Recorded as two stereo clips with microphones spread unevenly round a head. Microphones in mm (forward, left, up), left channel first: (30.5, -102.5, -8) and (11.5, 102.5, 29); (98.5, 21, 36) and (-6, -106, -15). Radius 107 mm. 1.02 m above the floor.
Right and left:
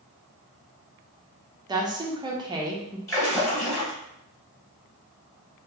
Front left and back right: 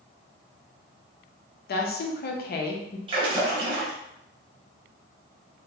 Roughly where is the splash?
Behind right.